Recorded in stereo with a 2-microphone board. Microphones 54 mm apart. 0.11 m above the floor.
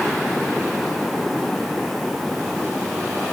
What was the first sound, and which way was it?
Only background noise.